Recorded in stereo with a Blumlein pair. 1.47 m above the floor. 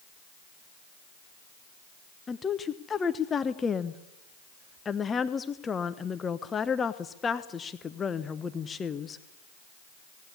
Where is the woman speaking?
20° left, 1.1 m.